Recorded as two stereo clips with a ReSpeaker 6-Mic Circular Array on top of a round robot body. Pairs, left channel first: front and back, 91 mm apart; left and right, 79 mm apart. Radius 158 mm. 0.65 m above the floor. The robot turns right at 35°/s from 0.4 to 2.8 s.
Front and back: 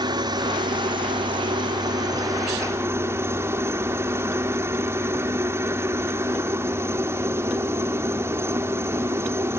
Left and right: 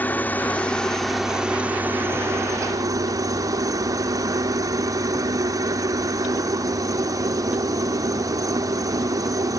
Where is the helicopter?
155° left; by 9.6 s 120° right.